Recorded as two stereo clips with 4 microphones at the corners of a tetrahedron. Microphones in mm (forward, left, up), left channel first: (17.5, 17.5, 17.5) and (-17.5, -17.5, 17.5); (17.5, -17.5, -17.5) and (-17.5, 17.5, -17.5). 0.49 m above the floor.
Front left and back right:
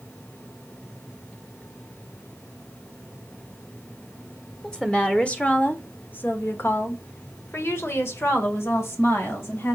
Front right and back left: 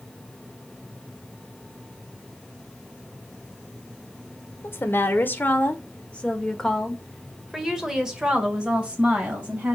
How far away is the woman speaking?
About 1.5 m.